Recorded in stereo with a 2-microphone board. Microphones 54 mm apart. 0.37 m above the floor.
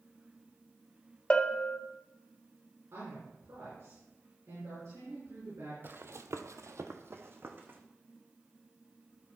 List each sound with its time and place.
1.3 s a bell: 20° left (ahead or behind), 0.6 m
2.9 s a woman speaking: 60° right (ahead or behind), 5.5 m
5.8 s running footsteps: 45° right (ahead or behind), 0.8 m; by 7.8 s 40° right (ahead or behind), 1.5 m